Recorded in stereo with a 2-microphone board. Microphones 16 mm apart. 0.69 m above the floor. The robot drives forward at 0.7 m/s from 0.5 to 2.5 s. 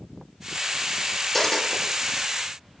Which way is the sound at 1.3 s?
20° left (ahead or behind).